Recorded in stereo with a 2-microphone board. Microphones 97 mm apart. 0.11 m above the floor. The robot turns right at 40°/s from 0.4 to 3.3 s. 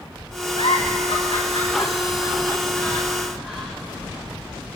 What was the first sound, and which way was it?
A giggle, 75° left (ahead or behind).